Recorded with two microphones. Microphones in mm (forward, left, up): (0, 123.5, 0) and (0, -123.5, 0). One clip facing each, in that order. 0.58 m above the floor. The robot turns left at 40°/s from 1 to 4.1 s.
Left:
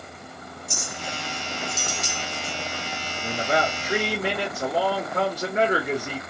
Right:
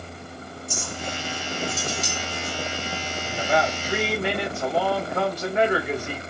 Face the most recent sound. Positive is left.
turn(degrees=50)